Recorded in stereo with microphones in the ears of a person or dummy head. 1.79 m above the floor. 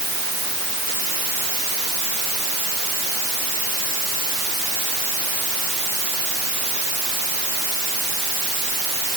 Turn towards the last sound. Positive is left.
No sound to turn to.